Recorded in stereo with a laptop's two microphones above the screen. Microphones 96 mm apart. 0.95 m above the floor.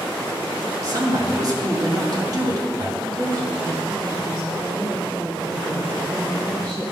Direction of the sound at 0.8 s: 40° right (ahead or behind).